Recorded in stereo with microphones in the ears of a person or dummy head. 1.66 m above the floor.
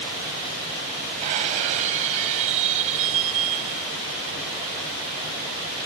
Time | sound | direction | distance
1.2 | breaking glass | 35° right (ahead or behind) | ?